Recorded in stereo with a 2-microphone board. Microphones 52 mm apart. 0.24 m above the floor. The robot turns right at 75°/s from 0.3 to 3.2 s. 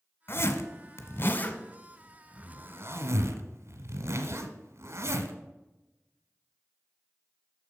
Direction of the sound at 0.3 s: 50° left (ahead or behind).